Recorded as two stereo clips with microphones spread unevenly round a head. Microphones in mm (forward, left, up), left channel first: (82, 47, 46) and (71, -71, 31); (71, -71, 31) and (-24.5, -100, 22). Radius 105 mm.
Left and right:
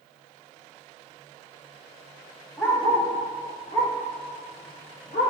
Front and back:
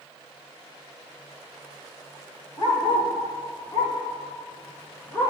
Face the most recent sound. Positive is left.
turn(degrees=85)